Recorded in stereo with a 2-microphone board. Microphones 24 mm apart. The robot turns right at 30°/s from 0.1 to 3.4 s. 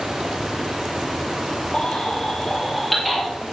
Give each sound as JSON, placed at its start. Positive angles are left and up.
{"t": 1.7, "sound": "a baby crying", "side_deg": 40, "distance_m": 3.5}